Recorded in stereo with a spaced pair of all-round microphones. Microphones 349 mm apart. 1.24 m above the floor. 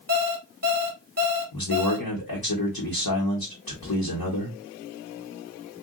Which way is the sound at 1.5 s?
85° left.